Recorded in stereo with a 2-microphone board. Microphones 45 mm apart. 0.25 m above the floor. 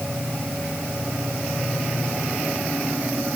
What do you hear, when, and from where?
Only background noise.